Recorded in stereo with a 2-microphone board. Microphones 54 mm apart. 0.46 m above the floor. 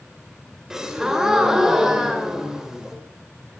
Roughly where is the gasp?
Centre.